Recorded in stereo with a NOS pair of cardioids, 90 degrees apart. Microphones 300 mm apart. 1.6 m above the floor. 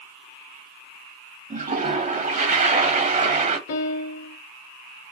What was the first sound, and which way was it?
A toilet flushing, 25° right.